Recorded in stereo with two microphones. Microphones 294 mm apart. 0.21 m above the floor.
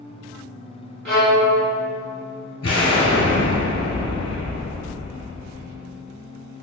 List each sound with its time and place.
1.1 s a violin: 65° right (ahead or behind), 0.8 m
2.6 s an explosion: 55° left (ahead or behind), 0.9 m